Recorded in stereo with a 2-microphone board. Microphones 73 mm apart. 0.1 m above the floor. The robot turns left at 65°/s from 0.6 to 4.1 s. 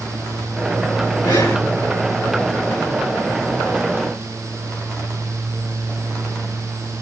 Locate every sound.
1.2 s breathing: 70° left (ahead or behind), 2.5 m; by 1.6 s 50° left (ahead or behind), 2.5 m